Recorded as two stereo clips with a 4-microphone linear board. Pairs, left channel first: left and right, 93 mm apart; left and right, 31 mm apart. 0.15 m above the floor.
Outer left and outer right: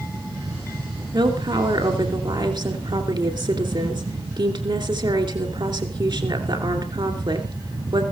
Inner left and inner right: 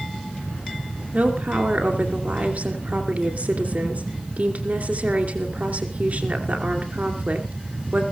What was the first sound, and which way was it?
A woman speaking, 55° right (ahead or behind).